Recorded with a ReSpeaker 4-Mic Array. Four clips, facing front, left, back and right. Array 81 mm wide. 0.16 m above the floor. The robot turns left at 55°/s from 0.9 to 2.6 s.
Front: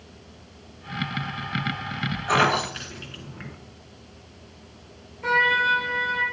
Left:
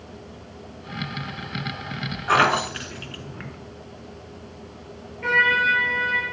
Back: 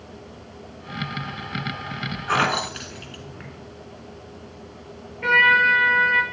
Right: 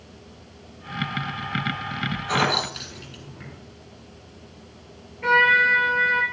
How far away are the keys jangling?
About 1.4 m.